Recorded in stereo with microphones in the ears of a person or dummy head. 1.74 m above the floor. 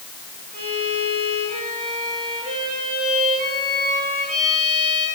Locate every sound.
0.5 s a violin: 45° right (ahead or behind), 5 m